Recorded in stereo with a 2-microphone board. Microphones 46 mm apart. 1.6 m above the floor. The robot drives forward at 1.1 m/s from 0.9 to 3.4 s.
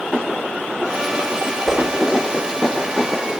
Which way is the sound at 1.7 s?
Centre (ahead or behind).